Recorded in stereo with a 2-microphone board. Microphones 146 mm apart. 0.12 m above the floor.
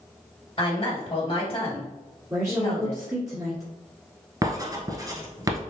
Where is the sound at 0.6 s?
30° left (ahead or behind), 1.8 m.